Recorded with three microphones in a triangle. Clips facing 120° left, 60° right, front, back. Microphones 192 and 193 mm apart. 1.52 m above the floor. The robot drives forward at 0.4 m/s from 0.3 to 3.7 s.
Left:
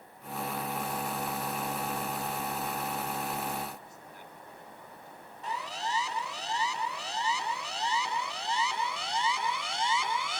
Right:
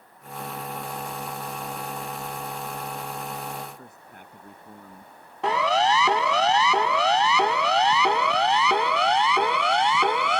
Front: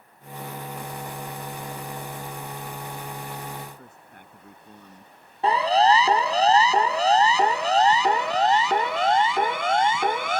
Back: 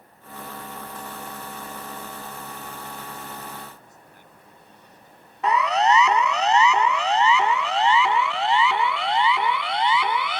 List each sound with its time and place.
3.8 s a man speaking: 30° right
5.4 s a siren: 60° right; by 10.4 s 40° right